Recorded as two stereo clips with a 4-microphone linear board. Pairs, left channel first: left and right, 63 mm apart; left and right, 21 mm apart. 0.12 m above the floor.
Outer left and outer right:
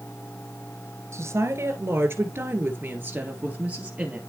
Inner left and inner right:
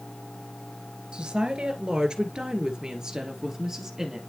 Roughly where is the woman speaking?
Right.